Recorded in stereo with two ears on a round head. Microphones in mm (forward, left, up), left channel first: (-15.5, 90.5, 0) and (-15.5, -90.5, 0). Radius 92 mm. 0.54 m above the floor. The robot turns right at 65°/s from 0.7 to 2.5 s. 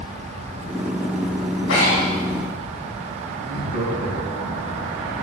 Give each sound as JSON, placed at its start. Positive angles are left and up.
{"t": 1.7, "sound": "breathing", "side_deg": 80, "distance_m": 3.0}
{"t": 3.4, "sound": "laughter", "side_deg": -40, "distance_m": 5.0}